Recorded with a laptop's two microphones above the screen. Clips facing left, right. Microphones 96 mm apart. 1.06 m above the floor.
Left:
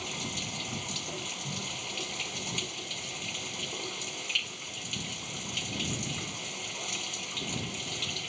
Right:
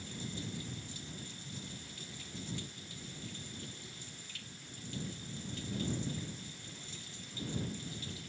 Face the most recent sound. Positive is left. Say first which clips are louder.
# left 5 dB
turn(degrees=80)